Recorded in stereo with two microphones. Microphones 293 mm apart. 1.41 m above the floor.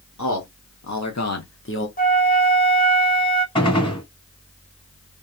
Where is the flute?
30° left (ahead or behind), 0.7 m.